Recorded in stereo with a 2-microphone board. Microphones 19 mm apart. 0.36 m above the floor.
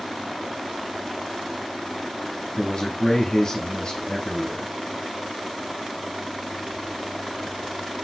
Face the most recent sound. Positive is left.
turn(degrees=35)  # may be behind; listen again after turning